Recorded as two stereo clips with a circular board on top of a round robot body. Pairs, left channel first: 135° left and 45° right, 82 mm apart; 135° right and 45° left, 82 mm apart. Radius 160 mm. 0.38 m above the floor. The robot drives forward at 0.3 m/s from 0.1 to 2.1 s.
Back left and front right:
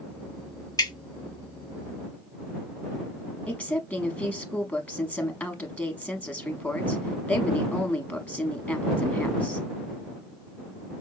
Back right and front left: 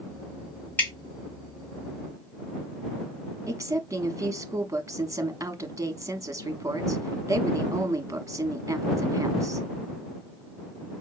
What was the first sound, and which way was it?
Dripping, 165° left.